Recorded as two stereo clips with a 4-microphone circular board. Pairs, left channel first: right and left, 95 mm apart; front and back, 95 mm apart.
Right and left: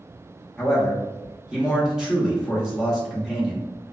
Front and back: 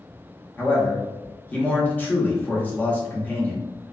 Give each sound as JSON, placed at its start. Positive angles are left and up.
{"t": 0.6, "sound": "a man speaking", "azimuth_deg": 20, "distance_m": 0.7}